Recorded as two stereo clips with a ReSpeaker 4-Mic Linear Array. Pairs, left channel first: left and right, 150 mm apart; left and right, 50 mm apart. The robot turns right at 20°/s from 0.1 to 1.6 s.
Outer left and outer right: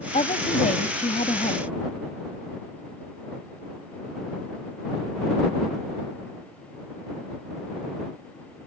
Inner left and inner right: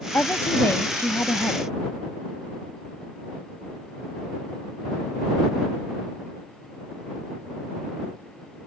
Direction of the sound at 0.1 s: 50° left (ahead or behind).